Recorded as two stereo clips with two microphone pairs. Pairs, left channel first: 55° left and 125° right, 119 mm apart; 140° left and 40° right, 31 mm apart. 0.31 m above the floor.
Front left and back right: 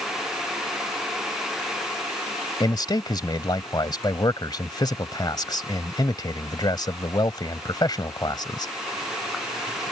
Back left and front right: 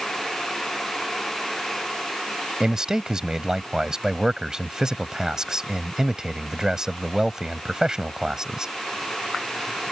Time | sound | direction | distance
2.6 | a man speaking | 20° left | ?